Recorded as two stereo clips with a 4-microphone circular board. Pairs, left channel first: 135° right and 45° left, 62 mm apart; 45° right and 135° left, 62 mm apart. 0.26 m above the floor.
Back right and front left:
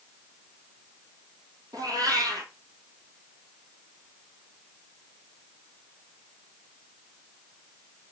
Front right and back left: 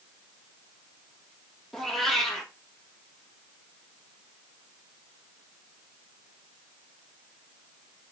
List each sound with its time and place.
1.7 s a cat meowing: 40° left, 1.3 m